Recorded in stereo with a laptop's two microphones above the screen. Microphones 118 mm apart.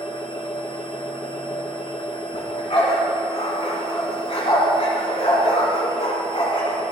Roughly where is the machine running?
Left.